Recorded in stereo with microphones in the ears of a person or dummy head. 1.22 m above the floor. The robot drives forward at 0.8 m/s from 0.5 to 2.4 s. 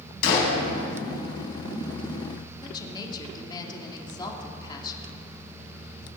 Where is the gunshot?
60° left (ahead or behind), 4.5 m; by 0.6 s 65° left (ahead or behind), 4.5 m.